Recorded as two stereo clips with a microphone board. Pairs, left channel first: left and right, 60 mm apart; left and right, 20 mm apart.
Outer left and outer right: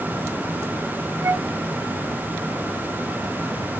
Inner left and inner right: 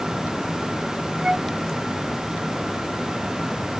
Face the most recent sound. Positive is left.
turn(degrees=-55)  # may be behind; listen again after turning